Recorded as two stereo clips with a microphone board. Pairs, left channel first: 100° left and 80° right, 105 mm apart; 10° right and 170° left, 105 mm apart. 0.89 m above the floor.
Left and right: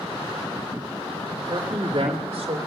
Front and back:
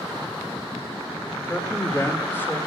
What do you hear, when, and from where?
1.4 s a man speaking: 65° right, 1.8 m; by 2.6 s 80° right, 2.5 m